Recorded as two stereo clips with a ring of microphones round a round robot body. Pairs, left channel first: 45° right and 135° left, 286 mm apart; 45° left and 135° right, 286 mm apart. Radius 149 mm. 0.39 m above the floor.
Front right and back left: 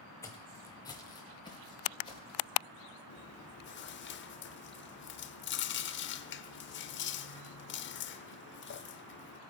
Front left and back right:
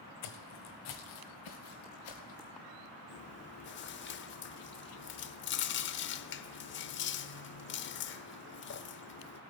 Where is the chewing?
Straight ahead, 0.6 m.